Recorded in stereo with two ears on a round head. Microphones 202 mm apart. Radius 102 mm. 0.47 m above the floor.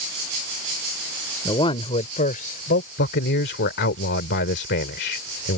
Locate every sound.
1.4 s a man speaking: 20° left (ahead or behind); by 2.9 s 50° left (ahead or behind)
3.0 s a man speaking: 55° left (ahead or behind)